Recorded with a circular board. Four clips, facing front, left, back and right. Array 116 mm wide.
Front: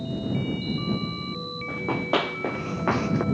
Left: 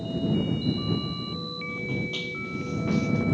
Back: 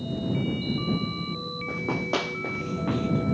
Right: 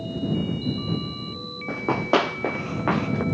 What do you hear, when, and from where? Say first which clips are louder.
1.7 s running footsteps: right 12 dB, front 3 dB; 80° right; by 3.2 s 35° right